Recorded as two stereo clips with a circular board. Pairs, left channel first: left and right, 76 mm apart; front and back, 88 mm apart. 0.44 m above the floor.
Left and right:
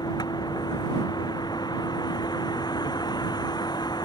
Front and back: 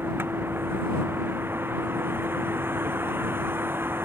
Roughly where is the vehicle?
Behind left.